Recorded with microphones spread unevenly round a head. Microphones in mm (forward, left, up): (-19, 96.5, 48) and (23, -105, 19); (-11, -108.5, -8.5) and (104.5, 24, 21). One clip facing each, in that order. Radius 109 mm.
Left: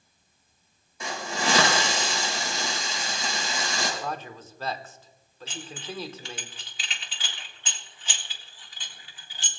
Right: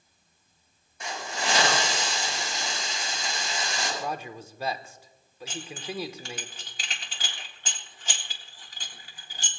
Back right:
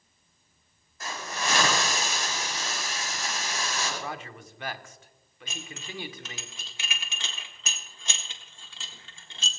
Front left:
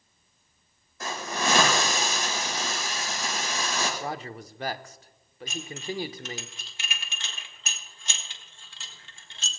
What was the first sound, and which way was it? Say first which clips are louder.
A hiss: left 3 dB, front left 4 dB; 80° left.